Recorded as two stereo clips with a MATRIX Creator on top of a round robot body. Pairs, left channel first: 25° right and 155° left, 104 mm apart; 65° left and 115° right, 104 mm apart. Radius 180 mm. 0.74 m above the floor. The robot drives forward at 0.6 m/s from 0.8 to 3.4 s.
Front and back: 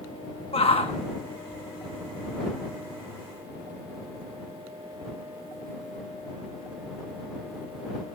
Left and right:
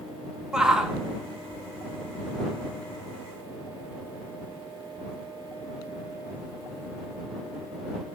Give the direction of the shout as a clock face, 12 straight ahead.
1 o'clock.